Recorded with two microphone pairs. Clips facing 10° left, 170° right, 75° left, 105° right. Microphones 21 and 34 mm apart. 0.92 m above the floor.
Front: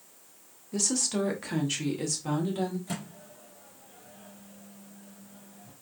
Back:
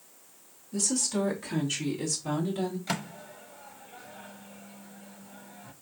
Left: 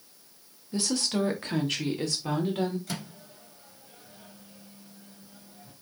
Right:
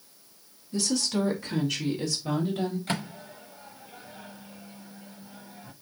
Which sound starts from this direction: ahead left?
A woman speaking, at 0.7 s.